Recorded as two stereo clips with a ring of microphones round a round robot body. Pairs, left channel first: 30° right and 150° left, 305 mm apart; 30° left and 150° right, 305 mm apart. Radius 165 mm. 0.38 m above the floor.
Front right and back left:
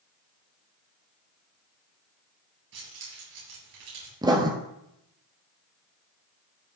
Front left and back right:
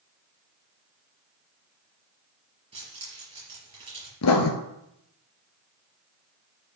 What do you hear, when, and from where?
2.7 s keys jangling: 135° left, 5.5 m
4.2 s writing: 75° left, 1.2 m